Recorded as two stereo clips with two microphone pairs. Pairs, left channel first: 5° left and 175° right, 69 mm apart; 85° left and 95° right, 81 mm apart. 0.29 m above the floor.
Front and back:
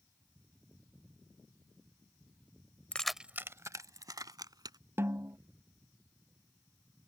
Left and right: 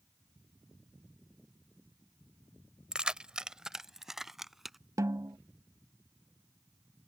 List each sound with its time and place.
2.9 s keys jangling: 30° right; by 4.8 s 175° left
5.0 s a snare drum: 130° right